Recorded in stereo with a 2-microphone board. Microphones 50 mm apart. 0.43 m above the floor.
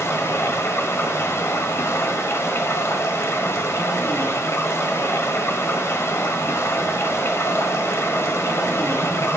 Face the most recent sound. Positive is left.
turn(degrees=65)  # may be behind; listen again after turning